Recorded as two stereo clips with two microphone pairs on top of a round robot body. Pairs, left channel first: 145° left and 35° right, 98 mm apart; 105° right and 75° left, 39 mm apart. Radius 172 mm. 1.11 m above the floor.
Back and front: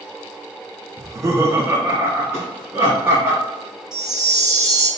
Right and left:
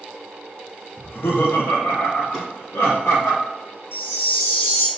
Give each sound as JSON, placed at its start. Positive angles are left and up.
{"t": 1.0, "sound": "laughter", "azimuth_deg": -90, "distance_m": 0.6}
{"t": 2.3, "sound": "a drawer", "azimuth_deg": -150, "distance_m": 1.0}
{"t": 3.9, "sound": "a chime", "azimuth_deg": -115, "distance_m": 0.9}